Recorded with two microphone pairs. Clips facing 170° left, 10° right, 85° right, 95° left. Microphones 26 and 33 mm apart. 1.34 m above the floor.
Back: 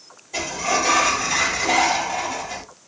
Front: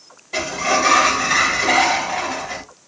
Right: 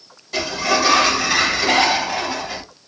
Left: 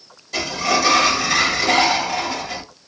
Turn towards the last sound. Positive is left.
turn(degrees=-5)